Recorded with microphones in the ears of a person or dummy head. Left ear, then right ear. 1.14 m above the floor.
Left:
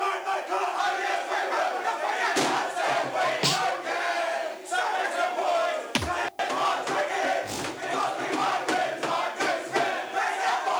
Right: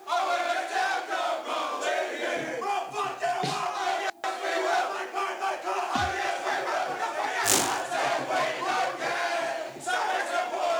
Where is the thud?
35° left (ahead or behind), 0.7 m.